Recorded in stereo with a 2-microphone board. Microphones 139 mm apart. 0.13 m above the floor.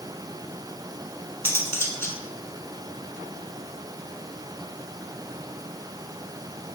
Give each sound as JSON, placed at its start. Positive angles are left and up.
{"t": 1.4, "sound": "cutlery clinking", "side_deg": 20, "distance_m": 0.6}